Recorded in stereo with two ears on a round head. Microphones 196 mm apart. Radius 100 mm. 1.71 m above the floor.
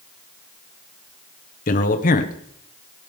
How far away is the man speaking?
About 1.4 m.